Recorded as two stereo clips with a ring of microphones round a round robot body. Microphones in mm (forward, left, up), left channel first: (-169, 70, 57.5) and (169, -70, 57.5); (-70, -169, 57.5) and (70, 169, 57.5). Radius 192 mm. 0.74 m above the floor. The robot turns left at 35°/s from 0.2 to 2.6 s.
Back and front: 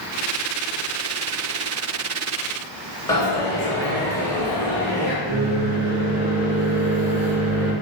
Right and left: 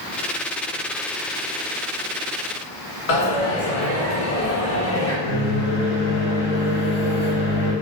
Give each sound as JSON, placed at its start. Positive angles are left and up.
{"t": 3.1, "sound": "a dropped coin", "azimuth_deg": -120, "distance_m": 2.0}
{"t": 5.2, "sound": "a microwave", "azimuth_deg": -100, "distance_m": 1.7}